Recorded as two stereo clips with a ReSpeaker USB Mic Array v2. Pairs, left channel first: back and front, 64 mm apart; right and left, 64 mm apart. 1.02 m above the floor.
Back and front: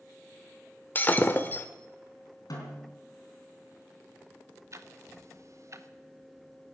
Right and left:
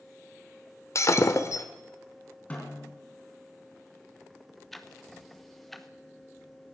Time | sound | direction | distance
0.9 | breaking glass | 120° right | 1.1 m
2.5 | a snare drum | 155° right | 3.5 m
4.7 | ticking | straight ahead | 0.9 m